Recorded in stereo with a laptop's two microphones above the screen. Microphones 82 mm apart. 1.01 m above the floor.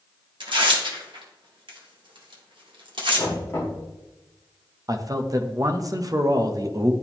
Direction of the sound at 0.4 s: 75° right (ahead or behind).